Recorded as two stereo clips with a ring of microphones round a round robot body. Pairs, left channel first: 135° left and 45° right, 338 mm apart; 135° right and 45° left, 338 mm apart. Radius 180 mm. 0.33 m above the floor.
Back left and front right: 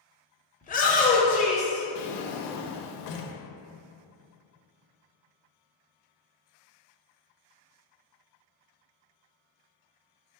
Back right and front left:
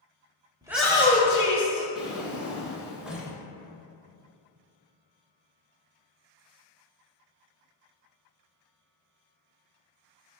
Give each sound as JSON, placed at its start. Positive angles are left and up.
{"t": 0.6, "sound": "a shout", "azimuth_deg": 105, "distance_m": 0.9}
{"t": 1.9, "sound": "a drawer", "azimuth_deg": 135, "distance_m": 0.7}